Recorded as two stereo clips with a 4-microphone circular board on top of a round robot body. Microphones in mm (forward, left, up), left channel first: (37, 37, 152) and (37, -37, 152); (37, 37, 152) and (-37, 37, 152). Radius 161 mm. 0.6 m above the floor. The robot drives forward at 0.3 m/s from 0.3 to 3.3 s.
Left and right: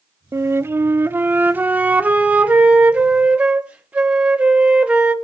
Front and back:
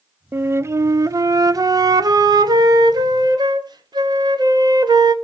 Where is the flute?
130° right, 0.6 m; by 5.1 s 165° right, 1.3 m.